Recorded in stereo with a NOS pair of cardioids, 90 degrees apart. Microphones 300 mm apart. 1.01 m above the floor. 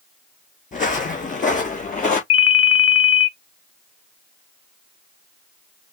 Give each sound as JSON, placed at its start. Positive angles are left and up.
{"t": 0.7, "sound": "footsteps", "azimuth_deg": 25, "distance_m": 3.5}
{"t": 2.3, "sound": "a ringtone", "azimuth_deg": 50, "distance_m": 1.0}